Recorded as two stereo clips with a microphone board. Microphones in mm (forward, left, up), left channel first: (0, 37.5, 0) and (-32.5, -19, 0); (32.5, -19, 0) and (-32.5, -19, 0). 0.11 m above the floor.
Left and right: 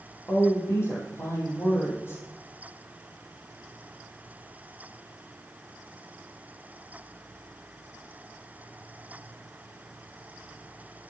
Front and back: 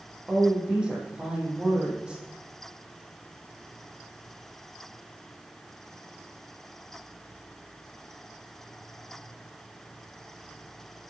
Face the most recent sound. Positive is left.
turn(degrees=105)